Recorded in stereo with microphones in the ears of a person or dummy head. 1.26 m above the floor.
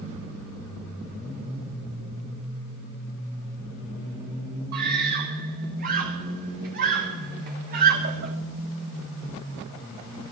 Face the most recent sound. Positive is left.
turn(degrees=-50)  # may be behind; listen again after turning